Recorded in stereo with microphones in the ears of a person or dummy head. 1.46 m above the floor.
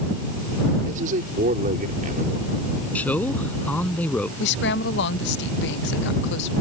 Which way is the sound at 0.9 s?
45° right (ahead or behind).